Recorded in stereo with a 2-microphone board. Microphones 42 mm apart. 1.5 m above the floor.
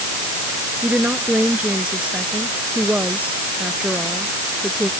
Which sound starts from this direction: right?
A woman speaking, at 0.8 s.